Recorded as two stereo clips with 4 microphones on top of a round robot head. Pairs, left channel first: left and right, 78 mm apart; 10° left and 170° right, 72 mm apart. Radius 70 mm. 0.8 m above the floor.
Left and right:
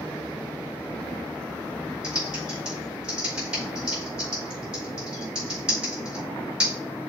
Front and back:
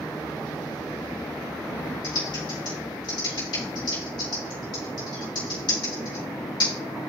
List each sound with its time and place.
2.0 s typing on a keyboard: 10° right, 5 m